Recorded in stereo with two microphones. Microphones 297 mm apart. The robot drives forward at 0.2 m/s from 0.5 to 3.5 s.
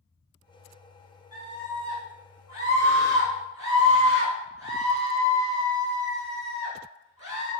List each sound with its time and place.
1.3 s a scream: 15° right (ahead or behind), 1.1 m; by 7.5 s 10° right (ahead or behind), 1.2 m